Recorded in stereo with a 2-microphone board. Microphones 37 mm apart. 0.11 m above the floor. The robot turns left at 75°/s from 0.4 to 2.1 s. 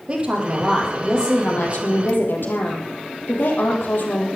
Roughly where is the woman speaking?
Behind right.